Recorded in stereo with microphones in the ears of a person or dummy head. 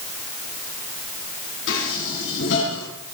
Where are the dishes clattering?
75° left (ahead or behind), 7.5 m.